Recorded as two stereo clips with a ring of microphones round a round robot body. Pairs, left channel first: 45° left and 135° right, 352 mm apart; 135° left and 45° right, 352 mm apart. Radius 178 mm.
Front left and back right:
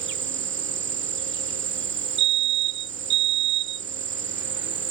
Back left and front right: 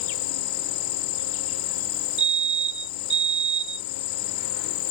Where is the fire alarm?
115° right.